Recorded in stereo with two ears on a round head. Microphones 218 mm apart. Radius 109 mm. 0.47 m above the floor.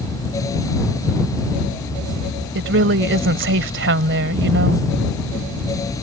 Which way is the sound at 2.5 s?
55° right (ahead or behind).